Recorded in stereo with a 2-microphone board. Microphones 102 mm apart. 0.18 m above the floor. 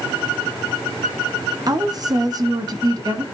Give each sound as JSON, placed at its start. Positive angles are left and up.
{"t": 1.7, "sound": "a woman speaking", "side_deg": -40, "distance_m": 1.3}